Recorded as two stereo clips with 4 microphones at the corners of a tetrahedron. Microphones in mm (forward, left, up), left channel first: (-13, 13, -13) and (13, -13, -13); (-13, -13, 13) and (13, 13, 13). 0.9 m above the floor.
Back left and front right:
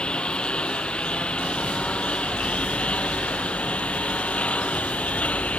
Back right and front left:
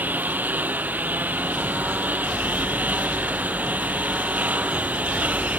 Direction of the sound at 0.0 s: 75° left.